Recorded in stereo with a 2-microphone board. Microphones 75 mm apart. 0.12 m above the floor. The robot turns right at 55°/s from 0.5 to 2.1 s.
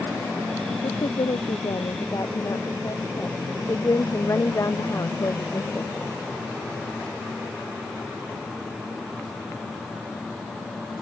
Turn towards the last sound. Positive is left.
turn(degrees=135)